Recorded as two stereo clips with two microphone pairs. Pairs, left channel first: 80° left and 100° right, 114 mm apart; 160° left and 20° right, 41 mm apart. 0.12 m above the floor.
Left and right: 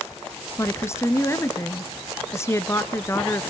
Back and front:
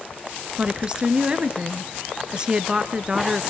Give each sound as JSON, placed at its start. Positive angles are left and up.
{"t": 0.6, "sound": "a woman speaking", "azimuth_deg": 30, "distance_m": 1.4}